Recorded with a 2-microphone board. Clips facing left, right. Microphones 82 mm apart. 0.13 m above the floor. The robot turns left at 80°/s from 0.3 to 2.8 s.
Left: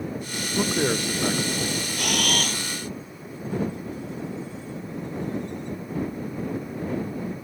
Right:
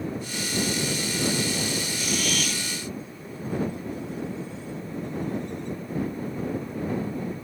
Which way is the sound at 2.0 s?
90° left.